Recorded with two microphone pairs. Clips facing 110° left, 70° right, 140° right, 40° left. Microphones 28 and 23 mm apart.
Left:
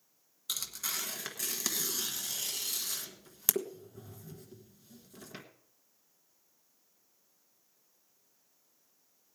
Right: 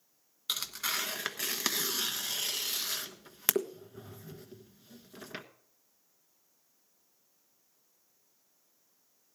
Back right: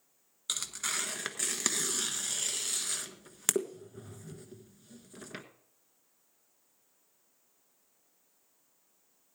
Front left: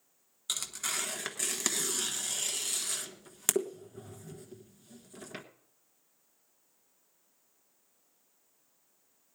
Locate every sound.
0.5 s tearing paper: 65° right, 1.2 m